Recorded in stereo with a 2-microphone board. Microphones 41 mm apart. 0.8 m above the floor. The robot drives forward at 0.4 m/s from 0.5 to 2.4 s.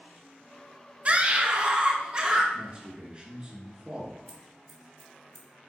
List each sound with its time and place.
1.1 s a scream: 30° right (ahead or behind), 0.6 m; by 2.4 s 20° right (ahead or behind), 0.8 m
2.5 s a man speaking: 20° right (ahead or behind), 1.1 m
4.3 s scissors: centre (ahead or behind), 1.8 m